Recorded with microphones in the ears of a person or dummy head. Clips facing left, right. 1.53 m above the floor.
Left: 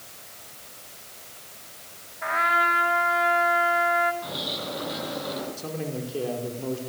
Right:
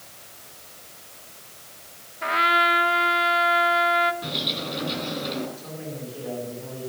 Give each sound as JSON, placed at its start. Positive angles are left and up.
{"t": 2.2, "sound": "a trumpet", "side_deg": -45, "distance_m": 2.0}
{"t": 4.2, "sound": "a bird", "side_deg": -40, "distance_m": 7.5}
{"t": 5.6, "sound": "a man speaking", "side_deg": 60, "distance_m": 5.0}